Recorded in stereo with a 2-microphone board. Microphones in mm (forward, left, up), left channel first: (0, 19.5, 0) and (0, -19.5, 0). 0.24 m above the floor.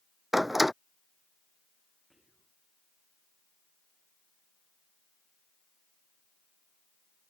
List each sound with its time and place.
0.3 s a door slam: 5° right (ahead or behind)
2.1 s whispering: 10° right (ahead or behind)